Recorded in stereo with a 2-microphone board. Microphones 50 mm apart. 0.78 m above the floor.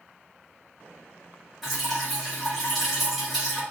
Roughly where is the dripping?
Centre.